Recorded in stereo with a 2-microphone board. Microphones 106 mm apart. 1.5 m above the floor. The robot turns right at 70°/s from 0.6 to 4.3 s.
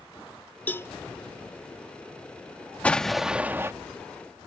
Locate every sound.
0.7 s a cowbell: 20° left (ahead or behind); by 0.9 s 30° left (ahead or behind)
2.8 s an explosion: 160° left; by 3.7 s 140° right